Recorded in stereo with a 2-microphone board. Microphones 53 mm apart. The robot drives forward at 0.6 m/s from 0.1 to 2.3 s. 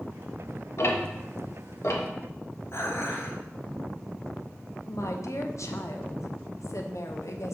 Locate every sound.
0.8 s ticking: 60° left (ahead or behind), 1.2 m
2.7 s dishes clattering: 55° left (ahead or behind), 1.9 m
4.9 s a woman speaking: 70° left (ahead or behind), 1.0 m